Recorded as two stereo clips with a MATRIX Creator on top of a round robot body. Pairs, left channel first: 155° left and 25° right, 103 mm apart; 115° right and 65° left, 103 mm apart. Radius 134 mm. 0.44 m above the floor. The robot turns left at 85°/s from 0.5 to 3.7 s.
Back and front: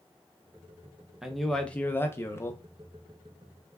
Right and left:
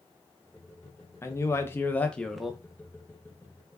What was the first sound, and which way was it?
A man speaking, 100° right.